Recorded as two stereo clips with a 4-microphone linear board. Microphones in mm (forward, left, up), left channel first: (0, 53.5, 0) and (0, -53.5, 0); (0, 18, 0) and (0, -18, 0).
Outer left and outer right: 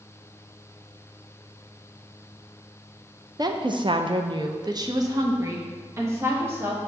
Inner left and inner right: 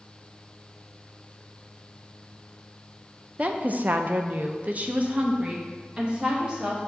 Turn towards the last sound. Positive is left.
turn(degrees=-20)  # may be behind; listen again after turning